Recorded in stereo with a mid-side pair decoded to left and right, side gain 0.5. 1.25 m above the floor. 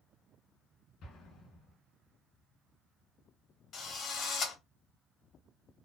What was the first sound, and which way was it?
An explosion, 65° left.